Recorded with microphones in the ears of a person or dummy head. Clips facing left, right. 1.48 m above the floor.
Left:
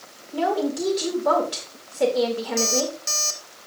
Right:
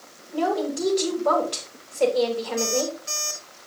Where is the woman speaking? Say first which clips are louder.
Left 1 dB; 15° left (ahead or behind), 4 m.